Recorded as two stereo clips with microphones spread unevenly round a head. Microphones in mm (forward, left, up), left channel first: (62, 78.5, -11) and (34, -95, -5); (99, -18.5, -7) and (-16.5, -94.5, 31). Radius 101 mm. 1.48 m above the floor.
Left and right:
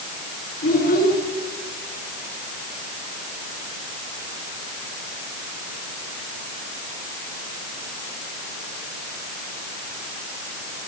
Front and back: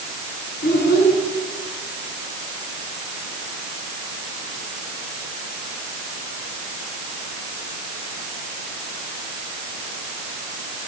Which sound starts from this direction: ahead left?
A child speaking, at 0.6 s.